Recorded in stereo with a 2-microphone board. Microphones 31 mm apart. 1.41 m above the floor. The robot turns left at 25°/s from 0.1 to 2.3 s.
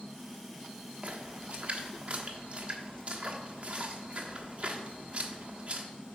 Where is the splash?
40° right (ahead or behind), 1.1 m.